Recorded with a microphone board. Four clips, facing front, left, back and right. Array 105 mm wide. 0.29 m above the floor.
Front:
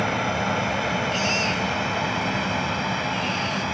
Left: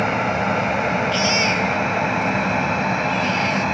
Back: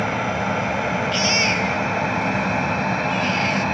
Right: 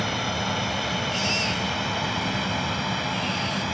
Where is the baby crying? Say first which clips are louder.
Left 8 dB, back 3 dB; 140° left.